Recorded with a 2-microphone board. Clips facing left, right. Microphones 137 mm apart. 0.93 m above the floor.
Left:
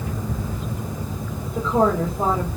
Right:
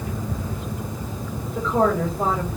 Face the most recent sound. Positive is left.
turn(degrees=15)  # may be behind; listen again after turning